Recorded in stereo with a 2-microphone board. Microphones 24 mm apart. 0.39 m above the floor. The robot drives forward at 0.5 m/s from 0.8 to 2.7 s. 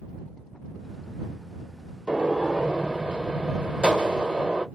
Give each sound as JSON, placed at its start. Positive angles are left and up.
{"t": 2.1, "sound": "a gunshot", "side_deg": -45, "distance_m": 1.0}